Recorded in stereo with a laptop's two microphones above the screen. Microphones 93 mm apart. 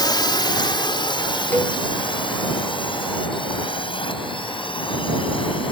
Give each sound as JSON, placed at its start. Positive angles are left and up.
{"t": 0.0, "sound": "a drone", "side_deg": 50}
{"t": 1.5, "sound": "a cowbell", "side_deg": 15}